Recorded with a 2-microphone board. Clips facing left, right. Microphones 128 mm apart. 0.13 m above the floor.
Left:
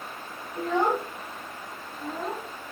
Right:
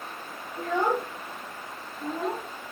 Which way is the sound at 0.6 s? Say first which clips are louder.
Left 1 dB; 30° left (ahead or behind).